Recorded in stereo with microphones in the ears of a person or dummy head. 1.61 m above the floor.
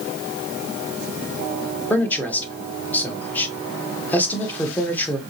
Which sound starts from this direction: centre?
A man speaking, at 1.9 s.